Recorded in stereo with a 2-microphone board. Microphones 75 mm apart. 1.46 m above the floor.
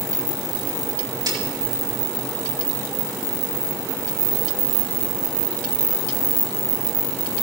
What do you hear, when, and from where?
1.3 s a snare drum: 70° right (ahead or behind), 4.5 m